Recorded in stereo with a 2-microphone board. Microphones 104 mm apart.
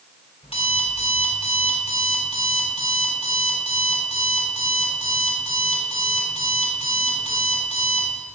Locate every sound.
0.4 s an alarm clock: 65° left (ahead or behind), 3 m